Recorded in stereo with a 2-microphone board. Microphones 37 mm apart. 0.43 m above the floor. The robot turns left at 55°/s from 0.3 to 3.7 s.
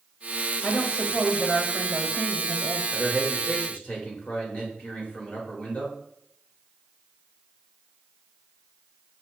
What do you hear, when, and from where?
0.6 s a woman speaking: 55° left, 1.6 m; by 2.8 s 65° right, 1.6 m
2.9 s a man speaking: 160° left, 1.6 m; by 6.0 s 120° left, 1.6 m